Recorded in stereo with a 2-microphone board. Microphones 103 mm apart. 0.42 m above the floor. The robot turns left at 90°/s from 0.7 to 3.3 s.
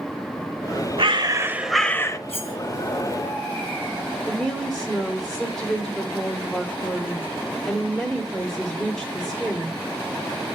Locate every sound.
1.0 s a bird: 110° right, 0.7 m; by 2.2 s 140° left, 0.7 m
2.3 s cutlery clinking: 80° left, 2.5 m; by 2.5 s 55° left (ahead or behind), 2.5 m
4.3 s a woman speaking: 5° left (ahead or behind), 1.3 m